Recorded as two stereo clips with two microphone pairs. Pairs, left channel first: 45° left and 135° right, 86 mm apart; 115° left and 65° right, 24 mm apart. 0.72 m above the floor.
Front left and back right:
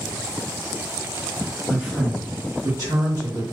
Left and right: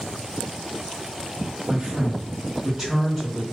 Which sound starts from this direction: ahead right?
A man speaking, at 1.7 s.